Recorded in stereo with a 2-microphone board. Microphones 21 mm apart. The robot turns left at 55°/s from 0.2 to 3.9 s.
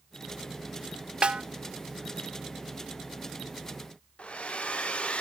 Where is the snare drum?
55° right (ahead or behind), 0.6 m; by 1.4 s 45° right (ahead or behind), 0.6 m.